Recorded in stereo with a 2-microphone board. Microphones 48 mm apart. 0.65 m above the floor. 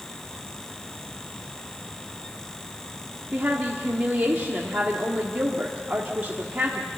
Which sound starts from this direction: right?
A woman speaking, at 3.3 s.